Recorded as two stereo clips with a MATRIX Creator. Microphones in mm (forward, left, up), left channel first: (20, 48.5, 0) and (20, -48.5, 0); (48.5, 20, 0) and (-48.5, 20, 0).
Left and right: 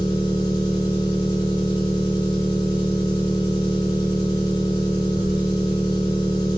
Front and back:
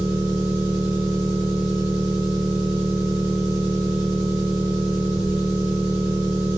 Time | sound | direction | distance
0.0 | an engine running | 45° left | 1.6 m